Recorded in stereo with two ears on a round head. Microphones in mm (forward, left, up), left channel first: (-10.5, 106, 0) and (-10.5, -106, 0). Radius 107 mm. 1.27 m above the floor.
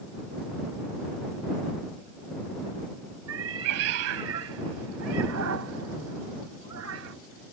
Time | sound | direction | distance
3.3 | a cat meowing | 65° right (ahead or behind) | ?